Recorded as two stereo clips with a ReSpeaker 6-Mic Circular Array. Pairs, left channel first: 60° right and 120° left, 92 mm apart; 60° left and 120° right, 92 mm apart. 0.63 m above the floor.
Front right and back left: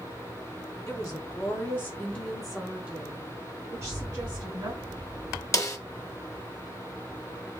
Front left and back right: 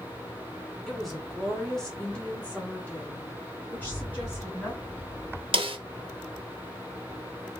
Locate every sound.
0.9 s a woman speaking: 30° right, 1.3 m; by 4.7 s 125° left, 1.4 m
3.7 s a rattle: 100° left, 1.8 m
5.5 s a snare drum: 115° right, 0.5 m